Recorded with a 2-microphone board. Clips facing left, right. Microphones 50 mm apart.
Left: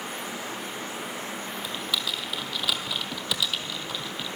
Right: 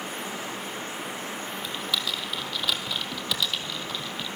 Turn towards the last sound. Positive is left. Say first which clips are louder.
# even
turn(degrees=0)  # may be behind; listen again after turning